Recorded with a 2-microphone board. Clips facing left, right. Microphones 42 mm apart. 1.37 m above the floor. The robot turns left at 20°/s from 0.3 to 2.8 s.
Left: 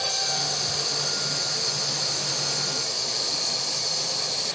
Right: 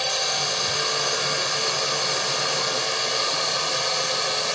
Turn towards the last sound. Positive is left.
turn(degrees=-105)